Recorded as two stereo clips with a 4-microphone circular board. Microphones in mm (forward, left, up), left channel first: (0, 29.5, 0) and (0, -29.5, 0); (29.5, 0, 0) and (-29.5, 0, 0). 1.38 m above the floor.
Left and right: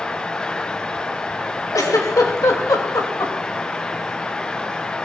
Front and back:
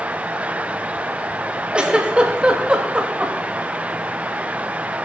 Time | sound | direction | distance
1.7 | a giggle | 105° left | 3 m